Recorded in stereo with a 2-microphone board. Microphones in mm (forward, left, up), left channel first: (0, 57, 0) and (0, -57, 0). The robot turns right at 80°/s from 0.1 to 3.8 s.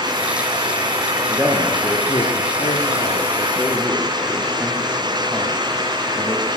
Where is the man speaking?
25° right (ahead or behind), 5 m; by 6.5 s 5° left (ahead or behind), 5 m.